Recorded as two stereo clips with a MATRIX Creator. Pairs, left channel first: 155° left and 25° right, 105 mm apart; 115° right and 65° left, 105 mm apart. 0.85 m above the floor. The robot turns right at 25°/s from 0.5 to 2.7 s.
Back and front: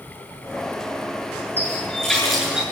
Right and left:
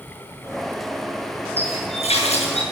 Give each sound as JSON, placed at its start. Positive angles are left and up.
{"t": 1.6, "sound": "a running tap", "azimuth_deg": -130, "distance_m": 7.5}